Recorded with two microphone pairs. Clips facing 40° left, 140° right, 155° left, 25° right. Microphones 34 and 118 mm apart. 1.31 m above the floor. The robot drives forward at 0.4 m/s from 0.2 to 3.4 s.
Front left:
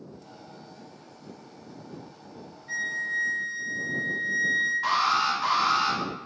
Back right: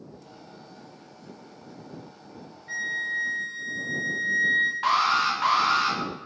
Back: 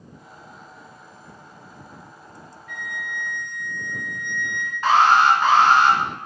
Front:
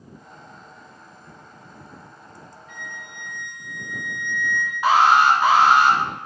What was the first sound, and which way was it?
A flute, 75° right.